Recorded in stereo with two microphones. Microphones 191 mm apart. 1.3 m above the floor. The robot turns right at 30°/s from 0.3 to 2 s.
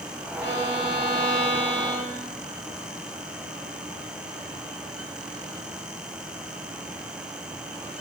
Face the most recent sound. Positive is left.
turn(degrees=-25)